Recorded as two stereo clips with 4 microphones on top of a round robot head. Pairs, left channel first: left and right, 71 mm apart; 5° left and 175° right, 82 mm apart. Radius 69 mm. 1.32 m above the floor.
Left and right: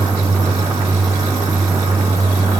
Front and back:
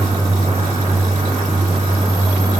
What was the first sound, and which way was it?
Only background noise.